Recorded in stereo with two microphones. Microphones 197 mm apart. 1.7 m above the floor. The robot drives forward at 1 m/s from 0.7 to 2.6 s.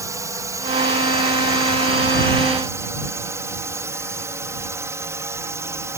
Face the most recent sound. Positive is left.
turn(degrees=-15)  # may be behind; listen again after turning